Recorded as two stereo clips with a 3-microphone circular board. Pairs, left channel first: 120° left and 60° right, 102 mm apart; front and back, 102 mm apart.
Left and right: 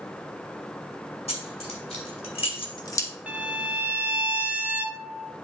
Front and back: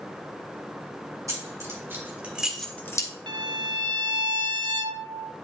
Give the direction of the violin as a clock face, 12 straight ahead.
5 o'clock.